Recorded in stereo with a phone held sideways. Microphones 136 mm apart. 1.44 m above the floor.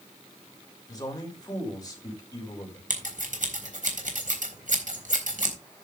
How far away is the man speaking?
About 6 m.